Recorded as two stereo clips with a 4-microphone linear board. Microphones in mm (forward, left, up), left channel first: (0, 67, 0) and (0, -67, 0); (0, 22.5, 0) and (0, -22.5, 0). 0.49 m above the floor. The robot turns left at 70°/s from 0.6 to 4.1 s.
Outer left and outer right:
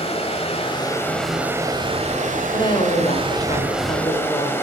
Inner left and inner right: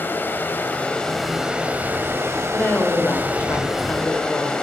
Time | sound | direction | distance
0.0 | running water | 50° left | 1.3 m
2.5 | a woman speaking | 145° left | 1.5 m